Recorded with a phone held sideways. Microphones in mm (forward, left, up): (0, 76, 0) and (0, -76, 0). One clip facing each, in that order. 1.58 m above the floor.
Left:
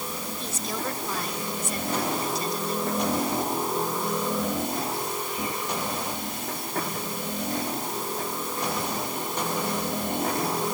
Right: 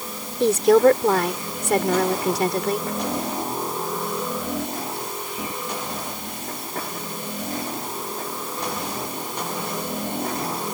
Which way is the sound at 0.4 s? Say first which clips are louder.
Right 21 dB; 80° right.